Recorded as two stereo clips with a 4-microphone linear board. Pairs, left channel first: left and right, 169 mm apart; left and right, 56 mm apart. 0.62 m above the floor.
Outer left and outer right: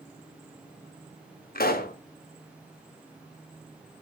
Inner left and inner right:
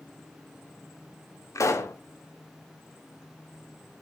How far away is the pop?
About 0.5 m.